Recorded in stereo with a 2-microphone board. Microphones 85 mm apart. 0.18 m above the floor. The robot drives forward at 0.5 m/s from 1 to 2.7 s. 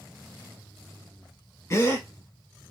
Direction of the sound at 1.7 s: 40° left (ahead or behind).